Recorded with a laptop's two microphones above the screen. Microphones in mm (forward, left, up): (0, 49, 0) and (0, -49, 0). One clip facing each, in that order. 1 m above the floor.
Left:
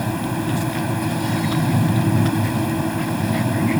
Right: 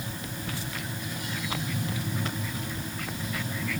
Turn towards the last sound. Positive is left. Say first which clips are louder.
# left 14 dB
turn(degrees=85)